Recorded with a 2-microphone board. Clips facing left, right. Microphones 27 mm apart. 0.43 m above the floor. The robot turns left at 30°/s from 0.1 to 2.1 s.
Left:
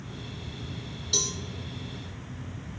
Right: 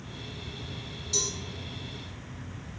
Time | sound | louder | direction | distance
1.1 | a cowbell | left 3 dB | 50° left (ahead or behind) | 1.0 m